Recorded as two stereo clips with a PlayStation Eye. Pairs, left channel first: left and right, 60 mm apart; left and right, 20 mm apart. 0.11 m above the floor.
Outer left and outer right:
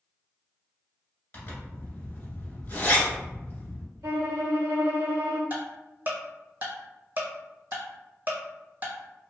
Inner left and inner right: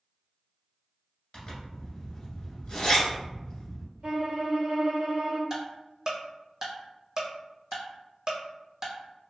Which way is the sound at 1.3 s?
35° left (ahead or behind).